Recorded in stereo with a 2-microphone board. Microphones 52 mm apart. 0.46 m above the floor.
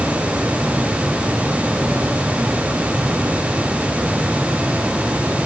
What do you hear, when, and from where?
Only background noise.